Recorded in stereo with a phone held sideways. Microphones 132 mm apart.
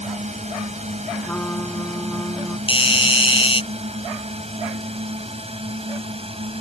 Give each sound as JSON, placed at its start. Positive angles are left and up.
{"t": 0.0, "sound": "a drone", "side_deg": -55}
{"t": 1.2, "sound": "a trumpet", "side_deg": 10}
{"t": 2.7, "sound": "a doorbell", "side_deg": 40}